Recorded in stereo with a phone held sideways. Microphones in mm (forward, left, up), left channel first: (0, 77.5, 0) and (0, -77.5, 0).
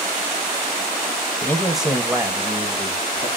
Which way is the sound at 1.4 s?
20° left (ahead or behind).